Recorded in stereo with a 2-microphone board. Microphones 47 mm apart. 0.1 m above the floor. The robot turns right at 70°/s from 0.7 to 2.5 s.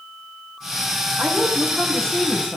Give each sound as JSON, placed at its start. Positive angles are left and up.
{"t": 1.2, "sound": "a woman speaking", "azimuth_deg": -50, "distance_m": 4.5}